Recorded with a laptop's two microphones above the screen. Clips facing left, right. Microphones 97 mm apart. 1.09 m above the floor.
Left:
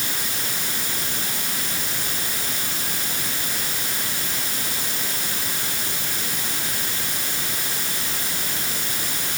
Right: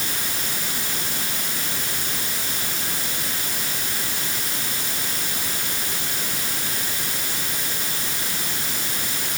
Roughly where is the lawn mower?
I don't hear a lawn mower.